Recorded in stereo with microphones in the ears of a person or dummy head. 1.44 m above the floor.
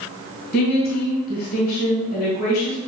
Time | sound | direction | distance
0.5 | a woman speaking | 55° left (ahead or behind) | 1.8 m